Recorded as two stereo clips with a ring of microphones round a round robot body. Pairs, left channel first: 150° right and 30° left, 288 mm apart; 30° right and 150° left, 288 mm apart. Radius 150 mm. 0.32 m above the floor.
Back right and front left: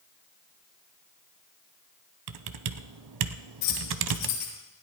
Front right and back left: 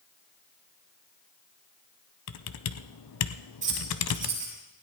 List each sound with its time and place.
2.3 s typing on a keyboard: 5° left, 0.7 m
3.6 s keys jangling: 145° right, 7 m